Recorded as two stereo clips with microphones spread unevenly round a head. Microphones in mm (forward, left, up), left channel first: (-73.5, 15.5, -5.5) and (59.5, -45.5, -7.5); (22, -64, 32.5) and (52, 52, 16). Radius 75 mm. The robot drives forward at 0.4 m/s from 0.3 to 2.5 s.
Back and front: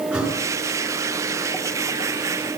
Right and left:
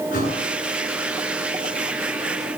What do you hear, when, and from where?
0.1 s a thud: 110° right, 9 m